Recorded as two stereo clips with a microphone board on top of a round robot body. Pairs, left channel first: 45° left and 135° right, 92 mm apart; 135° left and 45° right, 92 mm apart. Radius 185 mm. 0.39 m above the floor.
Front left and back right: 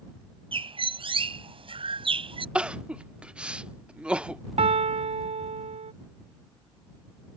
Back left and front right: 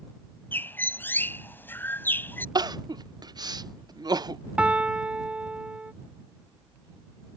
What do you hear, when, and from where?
0.5 s a bird: 155° right
2.5 s crying: 60° right
4.6 s a piano: 125° right